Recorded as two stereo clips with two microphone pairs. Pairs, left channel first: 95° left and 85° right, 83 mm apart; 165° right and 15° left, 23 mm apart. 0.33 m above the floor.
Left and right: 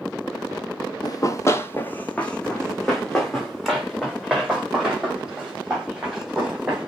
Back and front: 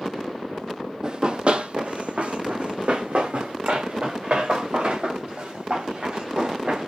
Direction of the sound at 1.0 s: 65° left.